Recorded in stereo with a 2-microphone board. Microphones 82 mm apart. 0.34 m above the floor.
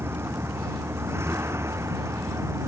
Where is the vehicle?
30° right (ahead or behind); by 2.7 s 35° right (ahead or behind).